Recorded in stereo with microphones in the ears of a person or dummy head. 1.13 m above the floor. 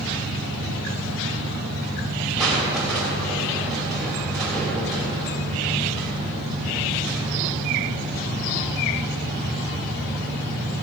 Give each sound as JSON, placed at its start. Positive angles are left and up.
{"t": 2.4, "sound": "crushing", "side_deg": 5, "distance_m": 3.0}